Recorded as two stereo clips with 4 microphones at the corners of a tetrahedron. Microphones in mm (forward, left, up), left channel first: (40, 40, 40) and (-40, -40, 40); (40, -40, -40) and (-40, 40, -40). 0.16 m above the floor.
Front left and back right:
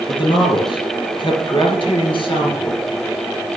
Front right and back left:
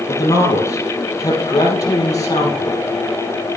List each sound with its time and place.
0.1 s a man speaking: 10° left, 3.5 m